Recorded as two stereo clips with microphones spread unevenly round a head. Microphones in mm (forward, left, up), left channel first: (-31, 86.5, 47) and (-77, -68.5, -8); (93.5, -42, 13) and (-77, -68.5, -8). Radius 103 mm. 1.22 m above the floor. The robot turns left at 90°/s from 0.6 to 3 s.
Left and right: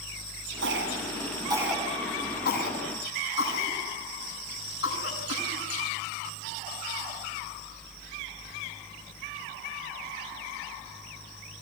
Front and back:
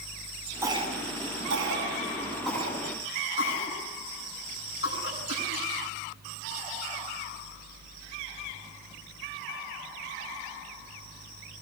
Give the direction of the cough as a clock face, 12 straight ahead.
3 o'clock.